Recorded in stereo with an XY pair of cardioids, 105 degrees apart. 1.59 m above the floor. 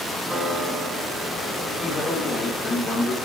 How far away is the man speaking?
About 4.5 m.